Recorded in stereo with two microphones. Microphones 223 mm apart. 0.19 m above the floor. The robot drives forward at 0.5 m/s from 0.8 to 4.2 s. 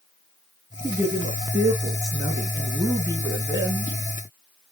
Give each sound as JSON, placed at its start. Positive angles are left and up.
{"t": 0.8, "sound": "a man speaking", "side_deg": -10, "distance_m": 3.5}